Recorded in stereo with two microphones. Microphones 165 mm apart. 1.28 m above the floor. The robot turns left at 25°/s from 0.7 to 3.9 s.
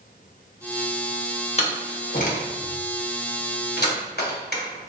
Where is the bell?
I don't hear a bell.